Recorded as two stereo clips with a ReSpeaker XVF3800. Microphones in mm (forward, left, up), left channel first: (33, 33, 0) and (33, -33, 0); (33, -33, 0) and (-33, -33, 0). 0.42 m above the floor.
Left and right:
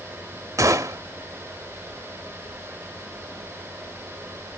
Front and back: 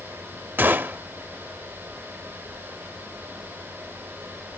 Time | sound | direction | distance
0.6 | a gunshot | 120° right | 0.5 m